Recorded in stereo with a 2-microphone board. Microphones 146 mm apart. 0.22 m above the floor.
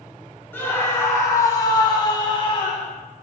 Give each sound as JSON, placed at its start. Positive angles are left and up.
{"t": 0.5, "sound": "a scream", "side_deg": 15, "distance_m": 2.5}